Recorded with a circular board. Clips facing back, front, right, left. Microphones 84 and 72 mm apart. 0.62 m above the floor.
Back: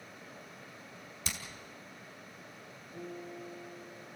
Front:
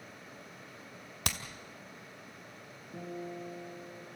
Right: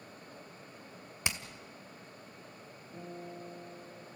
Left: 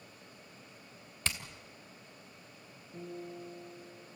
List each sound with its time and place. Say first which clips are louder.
1.2 s hammering: front 5 dB, right 1 dB; 15° right, 2 m
2.9 s a guitar: front 3 dB, left 1 dB; 10° right, 10 m